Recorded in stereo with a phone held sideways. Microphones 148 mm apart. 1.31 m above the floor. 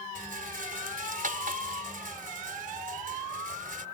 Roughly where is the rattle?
Right.